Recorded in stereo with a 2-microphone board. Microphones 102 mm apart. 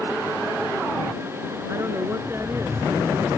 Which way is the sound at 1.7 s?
25° right (ahead or behind).